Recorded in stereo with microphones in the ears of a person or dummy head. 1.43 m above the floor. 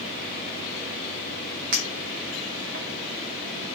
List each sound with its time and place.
1.7 s a clink: 50° right (ahead or behind), 0.6 m